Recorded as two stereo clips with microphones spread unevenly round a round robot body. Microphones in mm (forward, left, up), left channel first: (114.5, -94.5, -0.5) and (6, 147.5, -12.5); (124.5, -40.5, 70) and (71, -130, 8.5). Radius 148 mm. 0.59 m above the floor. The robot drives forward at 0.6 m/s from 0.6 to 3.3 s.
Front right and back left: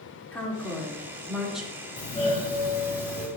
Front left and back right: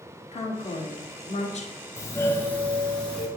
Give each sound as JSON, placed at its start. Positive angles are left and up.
{"t": 0.3, "sound": "a woman speaking", "azimuth_deg": 20, "distance_m": 1.9}
{"t": 2.0, "sound": "a doorbell", "azimuth_deg": -50, "distance_m": 1.0}